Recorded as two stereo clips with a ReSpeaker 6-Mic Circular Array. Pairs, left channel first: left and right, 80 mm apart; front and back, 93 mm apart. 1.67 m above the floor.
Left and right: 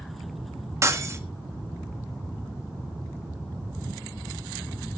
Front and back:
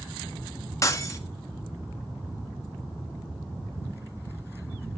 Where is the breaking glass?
45° right, 1.5 m.